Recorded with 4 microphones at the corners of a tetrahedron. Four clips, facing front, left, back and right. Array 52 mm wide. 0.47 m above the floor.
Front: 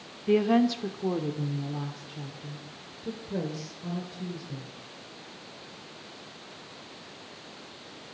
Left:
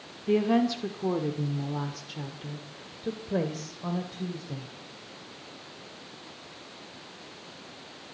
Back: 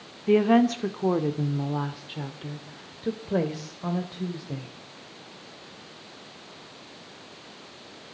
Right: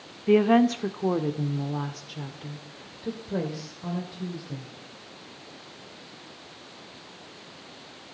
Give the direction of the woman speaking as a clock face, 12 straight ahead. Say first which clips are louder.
Right 5 dB, back 3 dB; 4 o'clock.